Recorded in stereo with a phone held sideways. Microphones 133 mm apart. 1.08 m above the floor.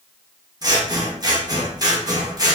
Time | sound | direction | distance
0.6 | scissors | 30° right (ahead or behind) | 0.6 m